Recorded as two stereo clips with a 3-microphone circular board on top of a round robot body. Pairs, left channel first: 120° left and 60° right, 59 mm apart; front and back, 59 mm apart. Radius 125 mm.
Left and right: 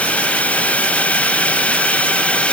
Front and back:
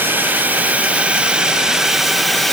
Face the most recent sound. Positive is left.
turn(degrees=85)